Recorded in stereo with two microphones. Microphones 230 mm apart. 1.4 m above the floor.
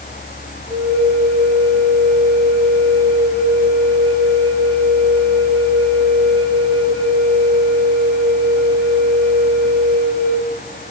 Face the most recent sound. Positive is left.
turn(degrees=-25)  # may be behind; listen again after turning